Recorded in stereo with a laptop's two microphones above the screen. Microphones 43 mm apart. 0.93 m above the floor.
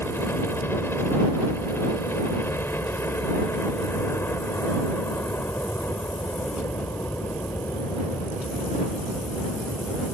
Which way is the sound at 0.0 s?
60° left (ahead or behind).